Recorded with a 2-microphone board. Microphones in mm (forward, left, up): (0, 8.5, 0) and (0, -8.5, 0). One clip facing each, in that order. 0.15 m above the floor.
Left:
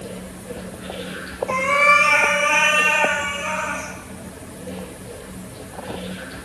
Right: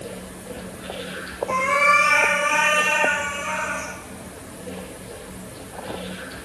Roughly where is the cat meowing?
Left.